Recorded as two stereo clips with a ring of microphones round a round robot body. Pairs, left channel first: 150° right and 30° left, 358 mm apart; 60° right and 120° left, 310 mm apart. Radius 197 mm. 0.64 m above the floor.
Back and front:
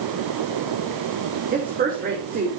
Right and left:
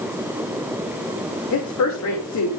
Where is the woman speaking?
35° right, 2.5 m.